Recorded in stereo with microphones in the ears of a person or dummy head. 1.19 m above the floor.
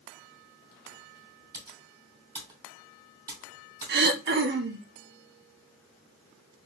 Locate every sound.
1.5 s typing on a keyboard: 25° right (ahead or behind), 3 m
3.9 s throat clearing: 50° right (ahead or behind), 0.7 m